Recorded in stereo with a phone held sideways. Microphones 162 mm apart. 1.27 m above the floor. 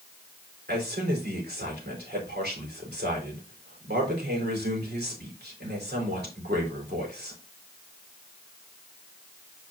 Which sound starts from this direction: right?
A man speaking, at 0.7 s.